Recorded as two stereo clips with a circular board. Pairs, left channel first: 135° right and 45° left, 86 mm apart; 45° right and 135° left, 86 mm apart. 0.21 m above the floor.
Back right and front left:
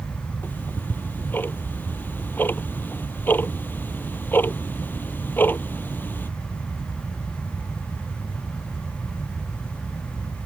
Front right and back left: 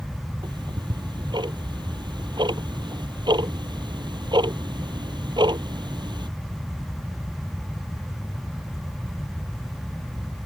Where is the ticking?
160° left.